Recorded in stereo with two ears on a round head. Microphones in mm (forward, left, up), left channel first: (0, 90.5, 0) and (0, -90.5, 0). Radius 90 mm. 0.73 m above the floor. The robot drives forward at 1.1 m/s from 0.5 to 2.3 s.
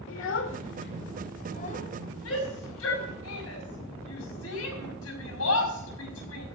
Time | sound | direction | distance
0.1 | a child speaking | 70° left (ahead or behind) | 1.7 m
2.2 | a shout | 80° left | 5.5 m